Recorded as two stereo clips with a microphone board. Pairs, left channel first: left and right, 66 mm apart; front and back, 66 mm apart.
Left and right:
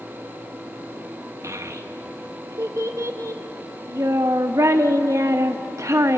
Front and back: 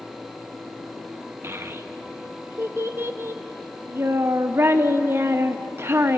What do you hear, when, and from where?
1.4 s a child speaking: 130° right, 1.0 m